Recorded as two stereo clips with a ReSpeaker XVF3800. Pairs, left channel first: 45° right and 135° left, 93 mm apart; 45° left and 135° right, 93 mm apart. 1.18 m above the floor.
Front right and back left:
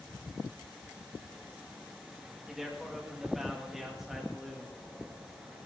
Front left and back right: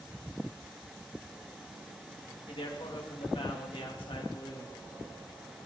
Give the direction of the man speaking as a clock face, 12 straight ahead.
10 o'clock.